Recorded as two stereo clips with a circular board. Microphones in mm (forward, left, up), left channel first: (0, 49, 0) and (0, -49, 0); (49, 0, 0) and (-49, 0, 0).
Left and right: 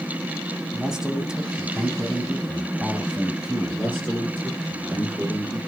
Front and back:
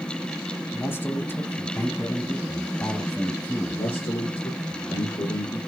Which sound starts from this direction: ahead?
A man speaking, at 0.7 s.